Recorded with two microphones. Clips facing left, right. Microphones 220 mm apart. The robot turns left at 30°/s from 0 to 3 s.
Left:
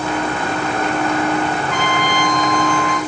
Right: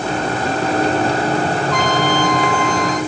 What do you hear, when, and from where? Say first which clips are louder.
1.7 s a trumpet: right 3 dB; 70° left, 3 m; by 3.0 s 30° left, 3 m